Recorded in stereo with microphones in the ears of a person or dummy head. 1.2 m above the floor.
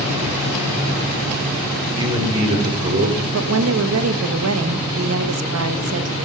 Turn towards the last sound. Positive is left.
turn(degrees=-85)